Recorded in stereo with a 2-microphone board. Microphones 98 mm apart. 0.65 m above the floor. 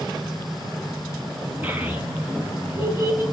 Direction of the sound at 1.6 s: 20° right (ahead or behind).